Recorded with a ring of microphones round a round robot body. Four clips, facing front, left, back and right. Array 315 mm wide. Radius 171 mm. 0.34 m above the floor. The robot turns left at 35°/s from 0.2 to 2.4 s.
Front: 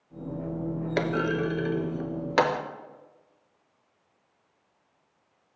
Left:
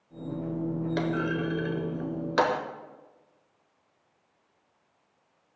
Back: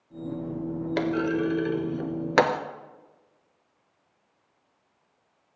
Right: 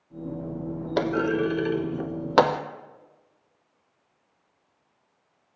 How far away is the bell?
No bell in this recording.